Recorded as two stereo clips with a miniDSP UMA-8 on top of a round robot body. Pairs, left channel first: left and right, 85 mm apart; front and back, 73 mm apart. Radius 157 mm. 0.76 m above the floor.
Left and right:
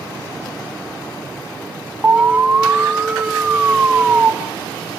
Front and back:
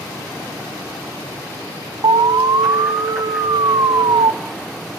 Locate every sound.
2.0 s an alarm: 160° right, 1.0 m